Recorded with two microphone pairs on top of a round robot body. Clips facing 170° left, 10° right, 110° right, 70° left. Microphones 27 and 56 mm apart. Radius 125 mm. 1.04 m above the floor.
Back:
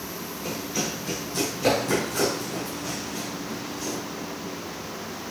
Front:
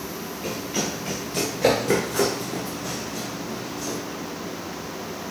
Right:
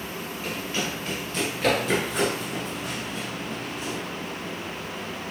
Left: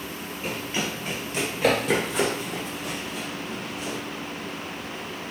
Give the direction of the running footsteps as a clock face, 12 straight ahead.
12 o'clock.